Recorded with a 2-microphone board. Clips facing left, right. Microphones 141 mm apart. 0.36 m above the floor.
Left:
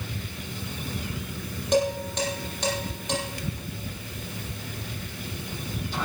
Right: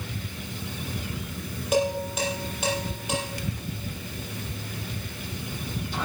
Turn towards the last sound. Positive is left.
turn(degrees=-5)  # may be behind; listen again after turning